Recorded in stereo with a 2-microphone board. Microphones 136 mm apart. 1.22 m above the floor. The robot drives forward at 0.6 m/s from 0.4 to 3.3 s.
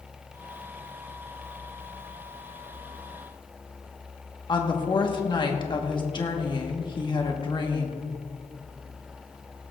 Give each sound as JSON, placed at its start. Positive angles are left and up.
{"t": 4.5, "sound": "a woman speaking", "side_deg": 35, "distance_m": 1.4}